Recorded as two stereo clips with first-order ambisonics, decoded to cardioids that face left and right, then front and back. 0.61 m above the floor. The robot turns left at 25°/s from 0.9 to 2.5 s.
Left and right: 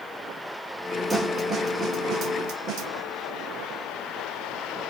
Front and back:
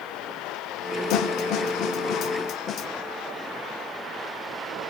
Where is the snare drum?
15° right, 1.1 m; by 2.9 s 50° right, 1.1 m.